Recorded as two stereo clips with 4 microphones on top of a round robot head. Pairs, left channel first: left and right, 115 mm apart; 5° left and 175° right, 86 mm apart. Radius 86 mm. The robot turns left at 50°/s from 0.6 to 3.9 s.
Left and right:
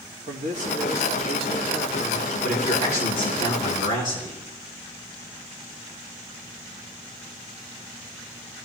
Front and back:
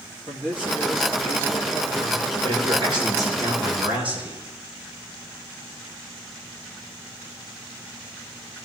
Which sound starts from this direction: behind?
A man speaking, at 2.4 s.